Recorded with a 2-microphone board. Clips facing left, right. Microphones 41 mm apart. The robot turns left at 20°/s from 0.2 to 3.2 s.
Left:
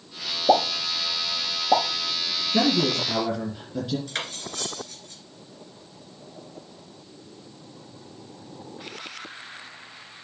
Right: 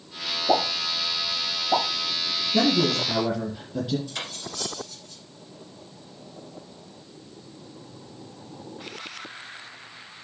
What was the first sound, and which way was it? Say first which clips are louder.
A pop: left 3 dB; 65° left (ahead or behind).